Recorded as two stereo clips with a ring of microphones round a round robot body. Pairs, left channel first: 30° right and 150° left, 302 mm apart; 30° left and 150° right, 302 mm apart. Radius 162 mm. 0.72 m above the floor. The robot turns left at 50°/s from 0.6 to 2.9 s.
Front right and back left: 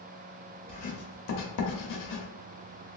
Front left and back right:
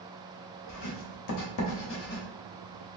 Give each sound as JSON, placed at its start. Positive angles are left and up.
{"t": 0.7, "sound": "writing", "azimuth_deg": 40, "distance_m": 0.8}